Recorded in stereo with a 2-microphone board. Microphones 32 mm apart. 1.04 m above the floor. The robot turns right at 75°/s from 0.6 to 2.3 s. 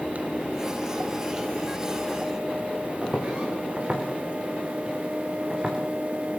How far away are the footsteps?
About 6.5 m.